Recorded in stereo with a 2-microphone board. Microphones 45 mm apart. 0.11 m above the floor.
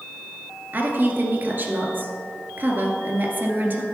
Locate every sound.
0.7 s a woman speaking: 40° right (ahead or behind), 1.7 m